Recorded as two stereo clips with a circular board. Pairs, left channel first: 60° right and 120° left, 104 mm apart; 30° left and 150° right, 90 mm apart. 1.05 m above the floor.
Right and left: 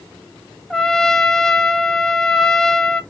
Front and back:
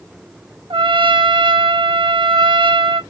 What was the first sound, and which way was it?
A trumpet, 145° right.